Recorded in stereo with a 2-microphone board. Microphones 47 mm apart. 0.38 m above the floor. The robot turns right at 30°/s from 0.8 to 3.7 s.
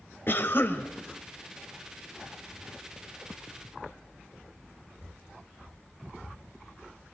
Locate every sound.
0.3 s a cough: 55° left (ahead or behind), 1.8 m